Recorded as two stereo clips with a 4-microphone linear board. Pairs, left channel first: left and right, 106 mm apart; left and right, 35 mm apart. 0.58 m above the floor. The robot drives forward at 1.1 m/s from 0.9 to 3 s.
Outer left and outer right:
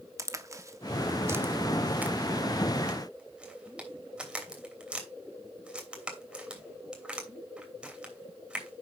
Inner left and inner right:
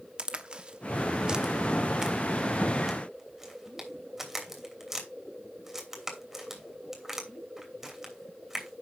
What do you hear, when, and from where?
0.2 s a crack: 30° right (ahead or behind), 1.0 m; by 8.8 s 10° right (ahead or behind), 3 m